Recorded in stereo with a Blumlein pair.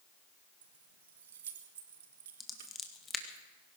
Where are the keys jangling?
60° right, 1.5 m.